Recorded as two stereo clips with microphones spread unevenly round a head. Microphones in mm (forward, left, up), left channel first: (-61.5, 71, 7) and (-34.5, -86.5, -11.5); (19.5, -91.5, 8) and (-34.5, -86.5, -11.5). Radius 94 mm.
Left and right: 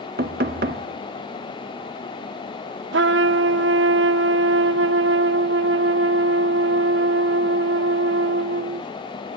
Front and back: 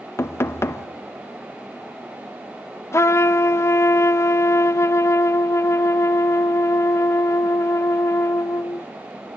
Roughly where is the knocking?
Ahead right.